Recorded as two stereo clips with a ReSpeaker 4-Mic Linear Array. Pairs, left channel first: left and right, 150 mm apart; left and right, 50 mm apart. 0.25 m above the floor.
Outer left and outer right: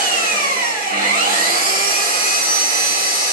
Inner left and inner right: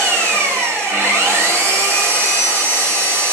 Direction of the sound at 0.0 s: 85° right.